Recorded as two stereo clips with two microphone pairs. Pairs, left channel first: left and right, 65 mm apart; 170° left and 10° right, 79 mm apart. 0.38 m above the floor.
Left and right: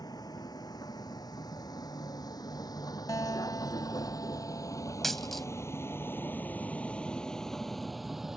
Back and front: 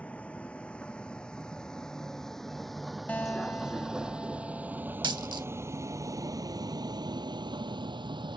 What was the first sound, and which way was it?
A vehicle, 95° left.